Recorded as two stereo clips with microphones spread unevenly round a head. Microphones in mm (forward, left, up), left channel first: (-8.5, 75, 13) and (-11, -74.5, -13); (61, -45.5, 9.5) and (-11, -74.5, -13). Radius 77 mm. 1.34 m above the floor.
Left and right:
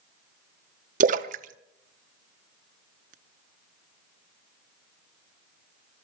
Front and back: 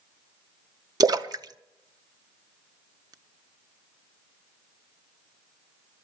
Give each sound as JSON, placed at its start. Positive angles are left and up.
{"t": 1.0, "sound": "a splash", "azimuth_deg": -125, "distance_m": 0.8}